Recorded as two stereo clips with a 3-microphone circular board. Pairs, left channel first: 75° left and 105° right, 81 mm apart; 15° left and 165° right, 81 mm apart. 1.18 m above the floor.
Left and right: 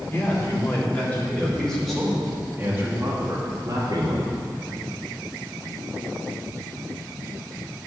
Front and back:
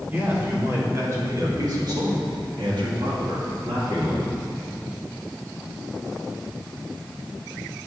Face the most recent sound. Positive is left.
turn(degrees=-130)